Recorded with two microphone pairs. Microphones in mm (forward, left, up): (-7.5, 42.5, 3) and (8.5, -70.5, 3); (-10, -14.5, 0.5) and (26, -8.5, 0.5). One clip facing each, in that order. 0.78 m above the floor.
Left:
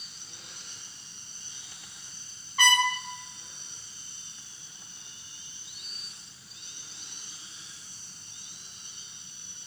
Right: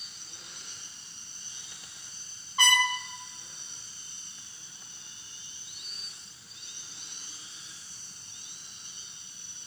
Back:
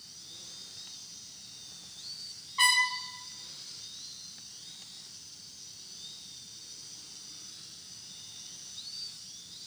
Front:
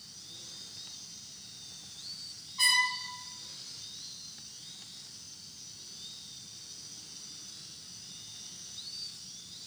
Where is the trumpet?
145° right, 1.4 m.